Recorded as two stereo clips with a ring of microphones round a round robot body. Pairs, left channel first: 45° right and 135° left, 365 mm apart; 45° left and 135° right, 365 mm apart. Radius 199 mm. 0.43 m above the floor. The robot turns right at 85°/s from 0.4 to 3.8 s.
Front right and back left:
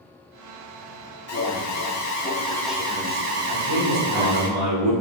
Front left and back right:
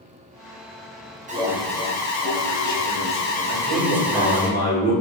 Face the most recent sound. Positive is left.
turn(degrees=165)